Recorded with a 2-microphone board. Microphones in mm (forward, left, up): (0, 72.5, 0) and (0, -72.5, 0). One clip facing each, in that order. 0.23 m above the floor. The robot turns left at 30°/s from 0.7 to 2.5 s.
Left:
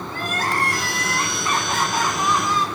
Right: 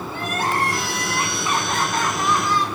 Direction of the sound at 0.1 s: 155° right.